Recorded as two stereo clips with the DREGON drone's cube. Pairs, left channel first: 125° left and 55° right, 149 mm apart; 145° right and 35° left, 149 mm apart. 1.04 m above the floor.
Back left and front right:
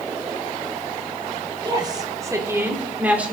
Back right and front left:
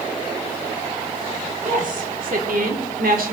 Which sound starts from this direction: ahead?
A woman speaking, at 1.6 s.